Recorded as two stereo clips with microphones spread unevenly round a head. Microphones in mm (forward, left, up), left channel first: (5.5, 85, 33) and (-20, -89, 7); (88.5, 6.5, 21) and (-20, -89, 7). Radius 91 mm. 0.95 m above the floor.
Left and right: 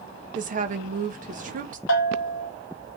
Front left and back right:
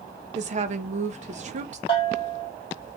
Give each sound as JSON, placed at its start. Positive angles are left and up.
{"t": 0.3, "sound": "a woman speaking", "azimuth_deg": -125, "distance_m": 0.8}
{"t": 1.9, "sound": "a bell", "azimuth_deg": 105, "distance_m": 0.8}